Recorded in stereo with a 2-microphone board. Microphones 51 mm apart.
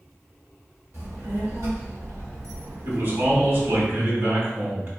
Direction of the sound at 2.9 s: 50° right (ahead or behind).